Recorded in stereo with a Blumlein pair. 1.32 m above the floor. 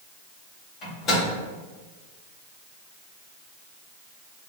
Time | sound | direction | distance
0.8 | a microwave | 25° left | 1.8 m